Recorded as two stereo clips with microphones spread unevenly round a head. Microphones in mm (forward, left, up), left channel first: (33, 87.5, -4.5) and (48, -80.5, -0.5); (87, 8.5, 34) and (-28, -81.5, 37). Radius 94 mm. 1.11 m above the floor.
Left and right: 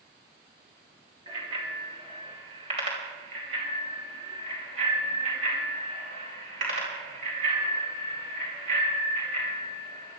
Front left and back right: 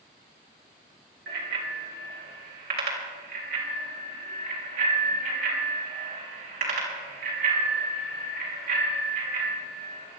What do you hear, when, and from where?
1.3 s a bicycle bell: 150° right, 3 m; by 10.2 s 135° right, 8.5 m